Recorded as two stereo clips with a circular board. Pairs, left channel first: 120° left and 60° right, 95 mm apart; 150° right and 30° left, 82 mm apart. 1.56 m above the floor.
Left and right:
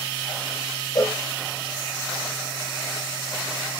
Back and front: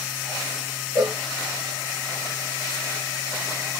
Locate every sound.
0.9 s a cowbell: 80° left, 1.3 m